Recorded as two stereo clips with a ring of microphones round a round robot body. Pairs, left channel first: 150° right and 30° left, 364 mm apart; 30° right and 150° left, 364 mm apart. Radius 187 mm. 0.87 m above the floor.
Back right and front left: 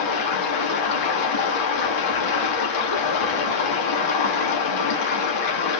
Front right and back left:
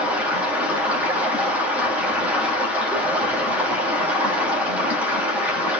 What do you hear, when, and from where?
0.0 s running water: 125° right, 1.6 m